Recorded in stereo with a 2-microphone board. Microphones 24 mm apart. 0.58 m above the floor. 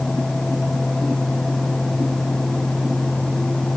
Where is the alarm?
No alarm in this recording.